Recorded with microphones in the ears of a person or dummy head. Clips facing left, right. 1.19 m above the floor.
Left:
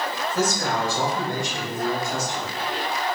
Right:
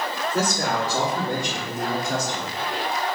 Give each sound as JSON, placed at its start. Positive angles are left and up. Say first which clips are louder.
{"t": 0.3, "sound": "a man speaking", "louder": "even", "side_deg": -50, "distance_m": 3.0}